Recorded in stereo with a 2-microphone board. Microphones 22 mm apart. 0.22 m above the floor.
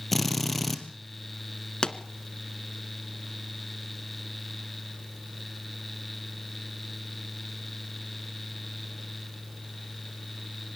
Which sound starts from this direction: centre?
A drill, at 0.1 s.